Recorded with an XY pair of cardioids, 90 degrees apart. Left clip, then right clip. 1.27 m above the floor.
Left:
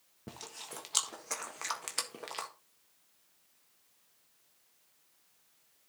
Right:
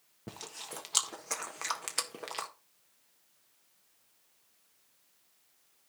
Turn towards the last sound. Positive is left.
turn(degrees=-15)